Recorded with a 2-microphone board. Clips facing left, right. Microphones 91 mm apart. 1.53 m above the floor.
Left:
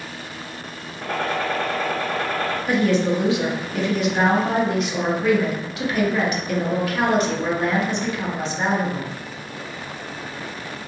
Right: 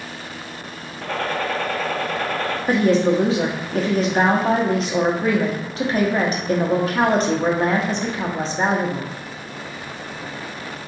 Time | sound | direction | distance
1.0 | a gunshot | 20° left (ahead or behind) | 1.1 m
2.7 | a woman speaking | 35° right (ahead or behind) | 0.7 m